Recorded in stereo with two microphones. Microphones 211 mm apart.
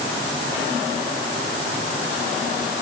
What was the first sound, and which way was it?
Only background noise.